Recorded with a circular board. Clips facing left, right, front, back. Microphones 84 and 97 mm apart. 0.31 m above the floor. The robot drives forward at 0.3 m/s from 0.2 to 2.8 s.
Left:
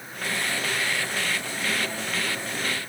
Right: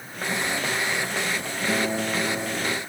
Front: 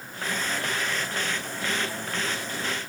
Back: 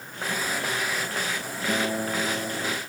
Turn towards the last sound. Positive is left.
turn(degrees=-145)